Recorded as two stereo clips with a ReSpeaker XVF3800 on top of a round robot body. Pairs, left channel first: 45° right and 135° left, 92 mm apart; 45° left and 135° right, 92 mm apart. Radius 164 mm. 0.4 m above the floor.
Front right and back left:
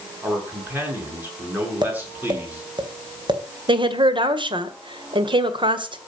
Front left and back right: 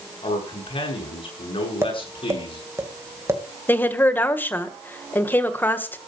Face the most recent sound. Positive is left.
turn(degrees=110)